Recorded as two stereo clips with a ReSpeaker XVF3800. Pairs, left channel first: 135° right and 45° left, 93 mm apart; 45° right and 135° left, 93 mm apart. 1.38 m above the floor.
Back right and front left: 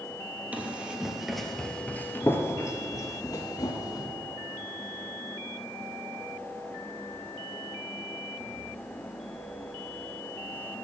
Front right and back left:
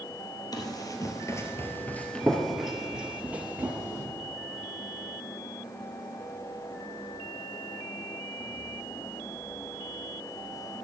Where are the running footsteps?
25° right, 1.9 m; by 4.0 s 165° right, 2.5 m.